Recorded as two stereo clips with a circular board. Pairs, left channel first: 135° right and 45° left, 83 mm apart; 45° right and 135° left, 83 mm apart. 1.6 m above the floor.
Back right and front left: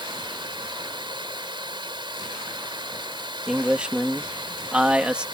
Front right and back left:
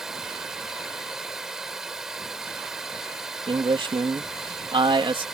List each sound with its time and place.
0.0 s running water: 50° left
3.5 s a man speaking: 120° left